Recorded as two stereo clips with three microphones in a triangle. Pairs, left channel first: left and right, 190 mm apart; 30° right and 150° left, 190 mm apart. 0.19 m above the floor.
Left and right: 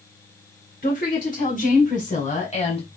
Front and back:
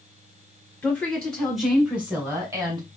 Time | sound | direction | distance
0.8 | a woman speaking | 50° left | 2.5 m